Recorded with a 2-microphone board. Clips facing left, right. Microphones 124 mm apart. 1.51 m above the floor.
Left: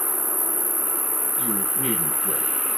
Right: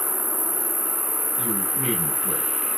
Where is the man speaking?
40° right (ahead or behind), 6 m.